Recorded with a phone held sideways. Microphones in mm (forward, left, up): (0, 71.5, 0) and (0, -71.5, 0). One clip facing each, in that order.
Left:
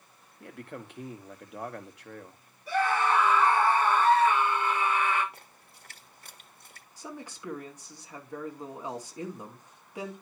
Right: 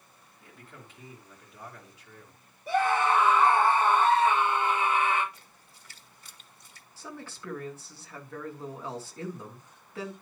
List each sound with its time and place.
0.4 s a man speaking: 70° left (ahead or behind), 1.6 m
2.7 s a scream: 25° right (ahead or behind), 5.5 m
5.3 s a splash: 60° left (ahead or behind), 1.3 m
7.0 s a man speaking: 15° left (ahead or behind), 2.5 m